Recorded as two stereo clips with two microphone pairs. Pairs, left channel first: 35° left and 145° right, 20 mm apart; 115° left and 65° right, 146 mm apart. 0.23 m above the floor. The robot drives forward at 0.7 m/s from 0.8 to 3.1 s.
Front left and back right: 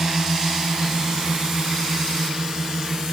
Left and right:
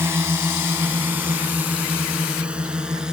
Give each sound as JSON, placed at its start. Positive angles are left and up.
{"t": 0.0, "sound": "a drone", "azimuth_deg": -130}